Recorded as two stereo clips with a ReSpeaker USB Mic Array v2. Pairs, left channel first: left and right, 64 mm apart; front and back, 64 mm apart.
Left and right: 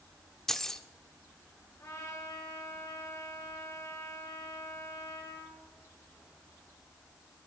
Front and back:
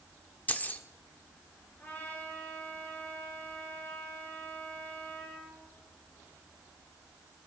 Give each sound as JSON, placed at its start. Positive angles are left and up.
{"t": 0.5, "sound": "keys jangling", "azimuth_deg": 15, "distance_m": 0.7}
{"t": 1.8, "sound": "a trumpet", "azimuth_deg": 55, "distance_m": 6.0}